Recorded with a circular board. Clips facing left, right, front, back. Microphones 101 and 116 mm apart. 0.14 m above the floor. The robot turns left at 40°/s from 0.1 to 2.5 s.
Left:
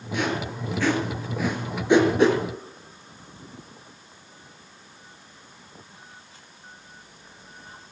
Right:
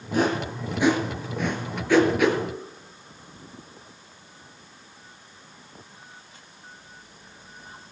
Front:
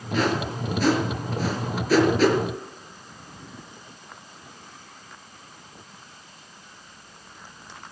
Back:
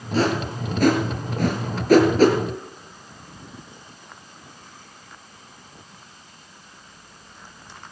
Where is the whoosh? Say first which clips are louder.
Right 4 dB, back 2 dB; 135° right, 3 m; by 2.4 s 135° left, 3 m.